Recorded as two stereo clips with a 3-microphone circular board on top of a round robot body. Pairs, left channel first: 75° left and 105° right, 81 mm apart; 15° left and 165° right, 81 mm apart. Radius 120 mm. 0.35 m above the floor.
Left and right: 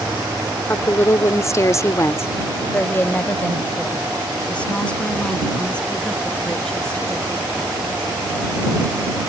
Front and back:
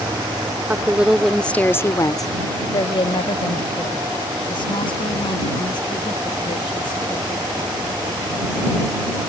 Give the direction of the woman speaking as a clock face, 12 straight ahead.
8 o'clock.